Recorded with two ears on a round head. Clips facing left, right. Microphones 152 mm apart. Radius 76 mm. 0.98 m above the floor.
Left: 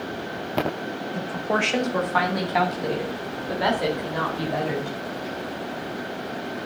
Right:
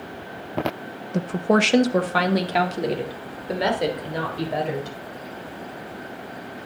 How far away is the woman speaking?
About 1.0 m.